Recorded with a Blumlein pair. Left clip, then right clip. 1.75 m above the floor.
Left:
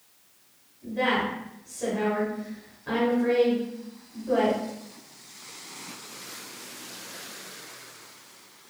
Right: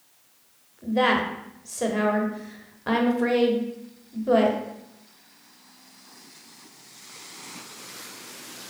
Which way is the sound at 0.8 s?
35° right.